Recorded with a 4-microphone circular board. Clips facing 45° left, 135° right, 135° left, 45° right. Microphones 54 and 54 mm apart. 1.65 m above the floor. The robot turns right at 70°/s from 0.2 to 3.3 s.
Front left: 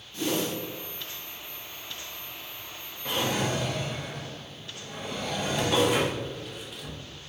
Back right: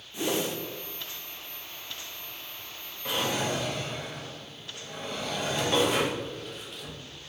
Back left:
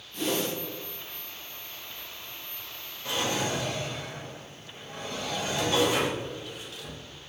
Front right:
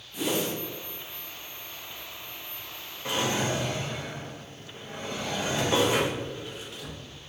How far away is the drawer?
About 0.9 m.